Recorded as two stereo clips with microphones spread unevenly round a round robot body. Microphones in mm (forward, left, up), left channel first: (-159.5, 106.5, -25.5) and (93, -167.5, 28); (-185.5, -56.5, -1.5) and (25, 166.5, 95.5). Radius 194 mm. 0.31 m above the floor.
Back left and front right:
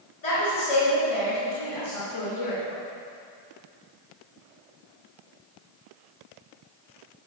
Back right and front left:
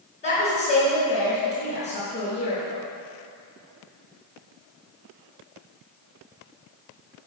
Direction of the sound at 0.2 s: 165° left.